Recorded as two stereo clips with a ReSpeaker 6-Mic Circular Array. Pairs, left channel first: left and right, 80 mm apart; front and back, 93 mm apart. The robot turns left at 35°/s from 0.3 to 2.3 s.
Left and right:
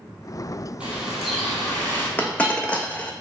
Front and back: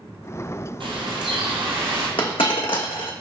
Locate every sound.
0.8 s a bird: 165° right, 1.2 m; by 2.1 s 150° left, 1.2 m
2.2 s a dropped coin: 20° left, 0.6 m; by 3.1 s 15° left, 0.6 m